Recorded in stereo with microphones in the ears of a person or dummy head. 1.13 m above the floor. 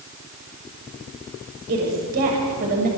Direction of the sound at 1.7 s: 55° right (ahead or behind).